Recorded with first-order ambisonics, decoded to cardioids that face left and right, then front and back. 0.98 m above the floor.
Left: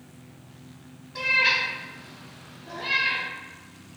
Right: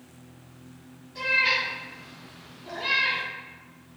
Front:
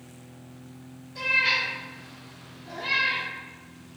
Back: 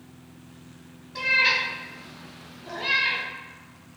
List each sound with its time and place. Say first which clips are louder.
1.1 s a cat meowing: left 2 dB, back 2 dB; 145° left, 1.1 m; by 3.2 s 135° right, 0.9 m